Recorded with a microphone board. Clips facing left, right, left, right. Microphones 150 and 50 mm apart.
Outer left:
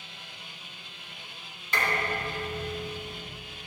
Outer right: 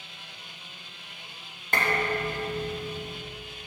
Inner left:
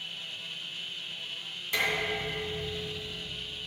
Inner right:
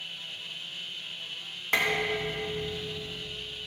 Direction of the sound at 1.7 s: 55° right (ahead or behind).